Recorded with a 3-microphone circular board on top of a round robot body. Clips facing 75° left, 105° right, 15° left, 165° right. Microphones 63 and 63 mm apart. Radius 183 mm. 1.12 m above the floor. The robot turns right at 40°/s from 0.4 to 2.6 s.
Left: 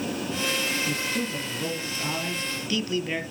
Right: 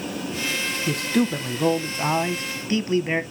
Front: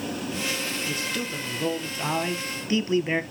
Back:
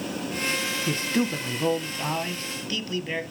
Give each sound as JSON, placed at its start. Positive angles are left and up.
{"t": 0.9, "sound": "a man speaking", "azimuth_deg": -115, "distance_m": 1.4}